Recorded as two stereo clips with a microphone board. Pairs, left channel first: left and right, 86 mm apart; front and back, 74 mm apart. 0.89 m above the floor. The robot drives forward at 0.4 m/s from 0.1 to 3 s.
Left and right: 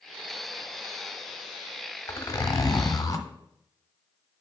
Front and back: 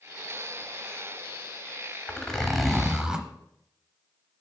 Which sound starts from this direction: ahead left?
A zipper, at 2.1 s.